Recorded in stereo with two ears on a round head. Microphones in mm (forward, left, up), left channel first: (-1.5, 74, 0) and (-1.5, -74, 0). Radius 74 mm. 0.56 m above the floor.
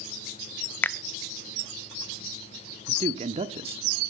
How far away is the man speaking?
About 0.9 m.